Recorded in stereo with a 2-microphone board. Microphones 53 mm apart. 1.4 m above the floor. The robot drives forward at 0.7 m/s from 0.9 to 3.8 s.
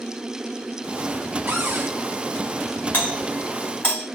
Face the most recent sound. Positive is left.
turn(degrees=35)  # may be behind; listen again after turning